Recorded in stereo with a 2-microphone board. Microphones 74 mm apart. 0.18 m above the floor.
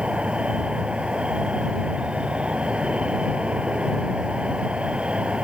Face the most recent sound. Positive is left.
turn(degrees=-15)  # may be behind; listen again after turning